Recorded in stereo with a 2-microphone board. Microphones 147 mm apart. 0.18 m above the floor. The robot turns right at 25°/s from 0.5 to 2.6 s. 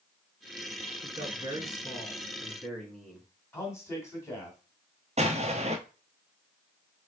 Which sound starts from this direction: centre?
A man speaking, at 3.5 s.